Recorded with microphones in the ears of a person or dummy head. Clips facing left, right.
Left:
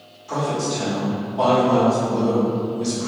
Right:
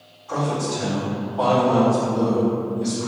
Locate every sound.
0.3 s a man speaking: 20° left (ahead or behind), 2.0 m